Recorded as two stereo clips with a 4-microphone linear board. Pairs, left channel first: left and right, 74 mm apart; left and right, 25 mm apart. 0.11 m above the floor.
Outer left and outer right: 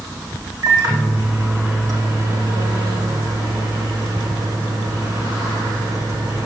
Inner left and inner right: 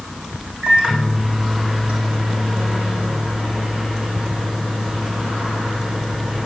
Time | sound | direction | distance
0.6 | a microwave | 60° right (ahead or behind) | 5 m